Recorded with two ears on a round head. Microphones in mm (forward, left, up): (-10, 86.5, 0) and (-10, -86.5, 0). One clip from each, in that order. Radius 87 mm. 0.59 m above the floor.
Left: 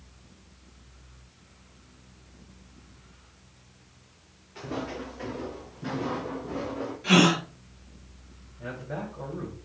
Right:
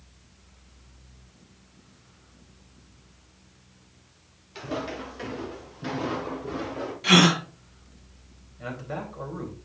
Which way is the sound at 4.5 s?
80° right.